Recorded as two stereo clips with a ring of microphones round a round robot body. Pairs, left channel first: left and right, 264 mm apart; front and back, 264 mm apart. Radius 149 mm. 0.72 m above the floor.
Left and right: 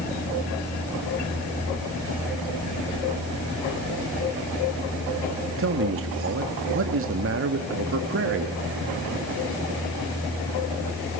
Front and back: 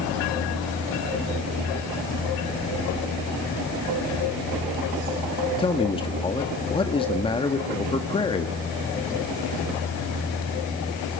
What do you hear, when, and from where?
5.6 s a man speaking: 65° right, 1.6 m